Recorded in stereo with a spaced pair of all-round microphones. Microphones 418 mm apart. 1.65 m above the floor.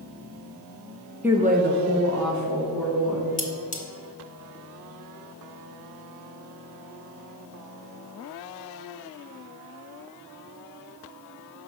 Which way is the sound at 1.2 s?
5° right (ahead or behind).